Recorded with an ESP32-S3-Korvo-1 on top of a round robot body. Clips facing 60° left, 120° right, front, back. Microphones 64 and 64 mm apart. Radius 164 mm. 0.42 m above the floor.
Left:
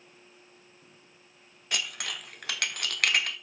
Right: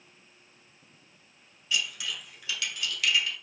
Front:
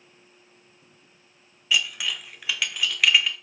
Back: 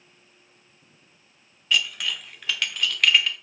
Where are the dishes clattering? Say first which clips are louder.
Right 1 dB, even; 85° left, 1.2 m.